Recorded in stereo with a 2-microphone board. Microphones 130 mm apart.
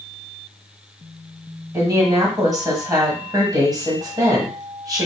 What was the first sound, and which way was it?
A woman speaking, 30° right (ahead or behind).